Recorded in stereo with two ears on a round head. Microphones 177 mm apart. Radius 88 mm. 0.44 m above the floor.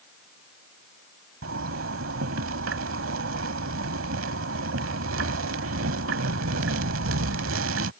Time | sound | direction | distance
1.4 | a zipper | 75° right (ahead or behind) | ?